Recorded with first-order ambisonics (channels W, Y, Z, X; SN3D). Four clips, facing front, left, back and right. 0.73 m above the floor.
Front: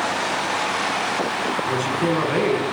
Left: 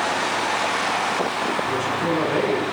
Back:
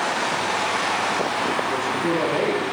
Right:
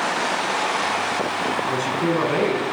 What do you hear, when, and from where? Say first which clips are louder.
1.7 s a man speaking: right 1 dB, front 1 dB; 45° right, 7.5 m